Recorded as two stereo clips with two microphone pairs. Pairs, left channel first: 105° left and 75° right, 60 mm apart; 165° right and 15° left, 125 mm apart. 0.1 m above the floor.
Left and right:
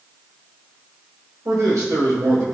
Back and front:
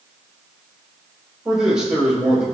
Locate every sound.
1.4 s a man speaking: 65° right, 4 m